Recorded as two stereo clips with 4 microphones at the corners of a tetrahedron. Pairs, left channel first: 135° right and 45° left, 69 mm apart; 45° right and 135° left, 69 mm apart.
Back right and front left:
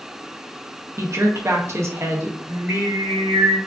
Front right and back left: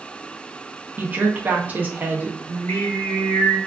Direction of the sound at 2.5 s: Straight ahead.